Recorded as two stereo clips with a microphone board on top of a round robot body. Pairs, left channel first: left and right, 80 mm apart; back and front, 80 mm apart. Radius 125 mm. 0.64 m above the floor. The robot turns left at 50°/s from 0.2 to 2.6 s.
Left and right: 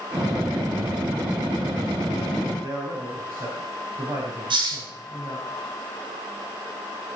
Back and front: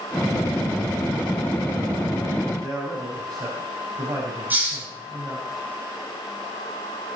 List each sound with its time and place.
2.6 s a man speaking: 50° right, 5.5 m
4.5 s a hiss: 70° right, 8 m